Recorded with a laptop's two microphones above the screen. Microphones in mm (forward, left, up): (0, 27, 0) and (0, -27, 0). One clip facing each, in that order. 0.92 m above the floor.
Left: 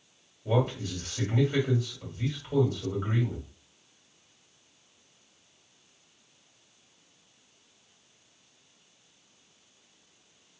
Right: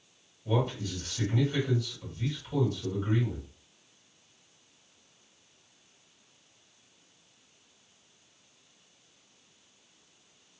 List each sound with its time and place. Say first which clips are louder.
0.5 s a man speaking: left 2 dB; 45° left (ahead or behind), 1.8 m